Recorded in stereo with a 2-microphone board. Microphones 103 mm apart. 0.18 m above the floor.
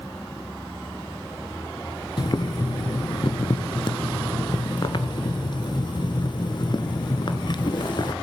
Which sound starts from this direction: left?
Boiling, at 2.2 s.